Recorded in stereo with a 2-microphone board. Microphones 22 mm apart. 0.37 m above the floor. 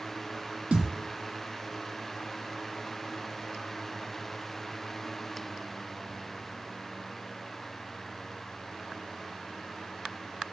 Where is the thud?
70° right (ahead or behind), 1.4 m.